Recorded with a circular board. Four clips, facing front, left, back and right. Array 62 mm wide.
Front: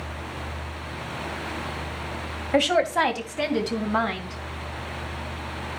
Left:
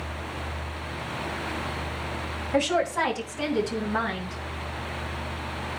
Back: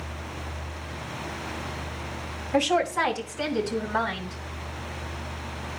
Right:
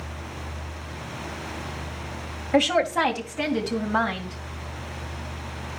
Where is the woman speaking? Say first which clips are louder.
Right 3 dB, front 2 dB; 40° right, 1.9 m; by 4.3 s 25° right, 3.5 m.